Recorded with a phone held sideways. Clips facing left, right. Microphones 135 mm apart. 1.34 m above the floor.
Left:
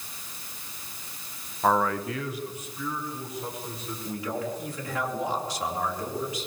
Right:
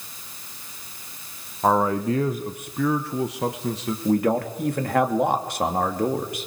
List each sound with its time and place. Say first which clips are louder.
1.6 s a man speaking: right 4 dB; 15° right (ahead or behind), 1.3 m; by 4.0 s 75° right (ahead or behind), 2.0 m
4.0 s a man speaking: right 11 dB; 60° right (ahead or behind), 2.5 m